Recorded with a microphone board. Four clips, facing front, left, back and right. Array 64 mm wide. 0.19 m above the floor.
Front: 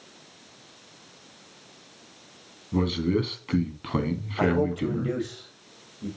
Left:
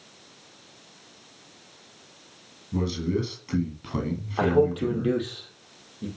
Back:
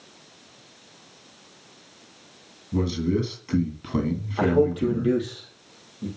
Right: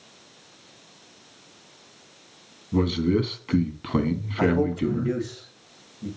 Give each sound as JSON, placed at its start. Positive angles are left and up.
{"t": 2.7, "sound": "a man speaking", "azimuth_deg": -55, "distance_m": 1.8}
{"t": 4.4, "sound": "a man speaking", "azimuth_deg": 100, "distance_m": 5.5}